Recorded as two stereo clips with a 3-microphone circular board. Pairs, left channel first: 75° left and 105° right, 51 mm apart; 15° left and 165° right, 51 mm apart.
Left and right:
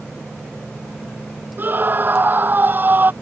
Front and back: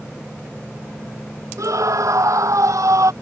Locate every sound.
1.6 s a scream: 155° right